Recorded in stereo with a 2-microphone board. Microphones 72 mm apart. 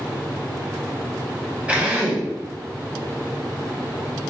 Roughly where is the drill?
Centre.